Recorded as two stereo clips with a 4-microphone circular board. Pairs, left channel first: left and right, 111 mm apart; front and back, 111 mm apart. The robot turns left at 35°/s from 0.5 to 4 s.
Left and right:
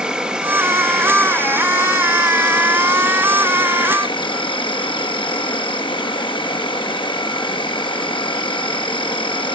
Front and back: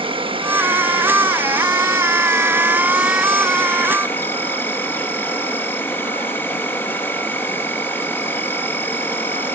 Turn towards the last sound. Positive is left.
turn(degrees=65)